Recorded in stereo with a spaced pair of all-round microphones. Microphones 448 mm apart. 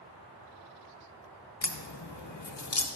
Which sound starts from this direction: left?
A crack, at 1.6 s.